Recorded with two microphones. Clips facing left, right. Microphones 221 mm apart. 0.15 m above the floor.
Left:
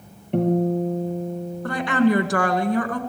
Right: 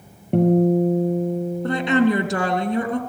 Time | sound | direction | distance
0.3 | a guitar | 45° right (ahead or behind) | 3.5 m
1.6 | a woman speaking | 25° right (ahead or behind) | 2.0 m